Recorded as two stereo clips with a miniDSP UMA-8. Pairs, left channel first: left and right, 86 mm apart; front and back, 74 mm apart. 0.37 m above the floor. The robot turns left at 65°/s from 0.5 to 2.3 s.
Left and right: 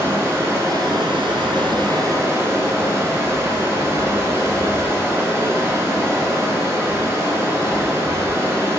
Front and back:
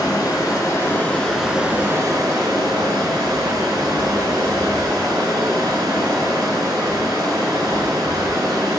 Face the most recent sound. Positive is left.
turn(degrees=-150)